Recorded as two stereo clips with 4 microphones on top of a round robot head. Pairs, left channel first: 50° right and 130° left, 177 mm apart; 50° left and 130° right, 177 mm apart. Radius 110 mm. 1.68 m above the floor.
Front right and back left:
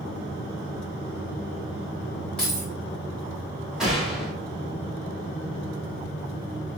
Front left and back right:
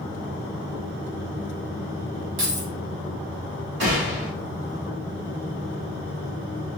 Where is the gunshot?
145° right, 1.3 m.